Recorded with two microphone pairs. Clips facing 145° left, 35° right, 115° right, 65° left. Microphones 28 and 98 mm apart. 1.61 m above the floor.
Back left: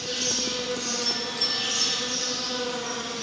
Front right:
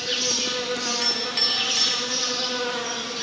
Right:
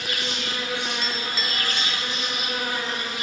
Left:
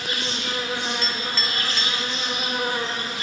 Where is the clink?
35° right, 3.5 m.